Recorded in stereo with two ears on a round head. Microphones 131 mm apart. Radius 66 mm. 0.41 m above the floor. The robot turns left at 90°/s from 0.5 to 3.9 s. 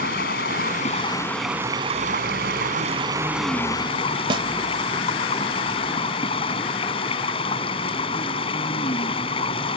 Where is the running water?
85° left; by 9.8 s 140° left.